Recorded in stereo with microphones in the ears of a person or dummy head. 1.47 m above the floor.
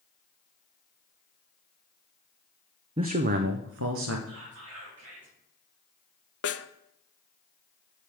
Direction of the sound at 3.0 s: 25° right (ahead or behind).